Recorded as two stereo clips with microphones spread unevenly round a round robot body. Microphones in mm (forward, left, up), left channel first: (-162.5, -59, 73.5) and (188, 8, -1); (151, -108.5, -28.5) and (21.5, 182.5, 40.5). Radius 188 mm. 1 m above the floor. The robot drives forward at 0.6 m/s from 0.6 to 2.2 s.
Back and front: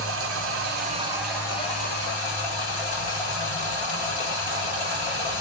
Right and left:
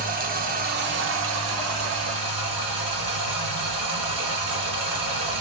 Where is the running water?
70° left, 0.8 m; by 5.4 s 145° left, 1.1 m.